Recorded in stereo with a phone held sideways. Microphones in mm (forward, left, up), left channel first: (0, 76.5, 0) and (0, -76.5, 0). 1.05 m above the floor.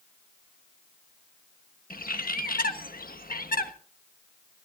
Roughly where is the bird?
Left.